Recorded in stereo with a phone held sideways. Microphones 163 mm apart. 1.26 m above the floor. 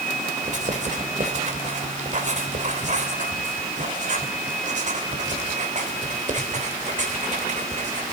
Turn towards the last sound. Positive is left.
turn(degrees=-50)  # may be behind; listen again after turning